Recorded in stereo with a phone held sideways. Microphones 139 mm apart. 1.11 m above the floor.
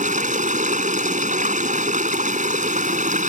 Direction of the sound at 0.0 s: 65° right (ahead or behind).